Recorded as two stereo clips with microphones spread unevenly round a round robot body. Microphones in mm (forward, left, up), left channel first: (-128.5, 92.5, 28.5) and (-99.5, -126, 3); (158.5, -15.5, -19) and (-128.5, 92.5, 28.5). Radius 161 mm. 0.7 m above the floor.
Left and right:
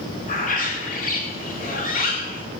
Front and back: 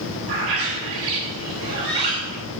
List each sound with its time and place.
0.3 s a bird: 150° left, 3 m